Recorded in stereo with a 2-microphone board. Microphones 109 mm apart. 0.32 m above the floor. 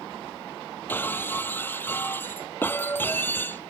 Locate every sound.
0.9 s breaking glass: 20° left (ahead or behind)